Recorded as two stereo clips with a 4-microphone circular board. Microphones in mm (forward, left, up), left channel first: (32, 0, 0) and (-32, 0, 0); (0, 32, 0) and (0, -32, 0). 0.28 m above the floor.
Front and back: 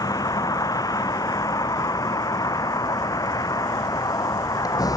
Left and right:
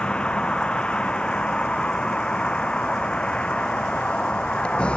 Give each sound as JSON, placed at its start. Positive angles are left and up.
{"t": 0.0, "sound": "a vehicle", "azimuth_deg": 15}